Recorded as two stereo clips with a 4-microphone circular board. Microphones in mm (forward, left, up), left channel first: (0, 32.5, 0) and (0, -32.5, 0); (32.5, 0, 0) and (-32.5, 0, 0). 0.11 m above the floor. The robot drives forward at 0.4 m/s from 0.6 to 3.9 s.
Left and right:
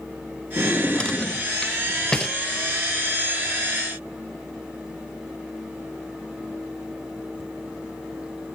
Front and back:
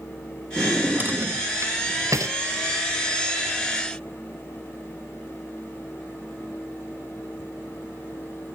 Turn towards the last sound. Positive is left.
turn(degrees=175)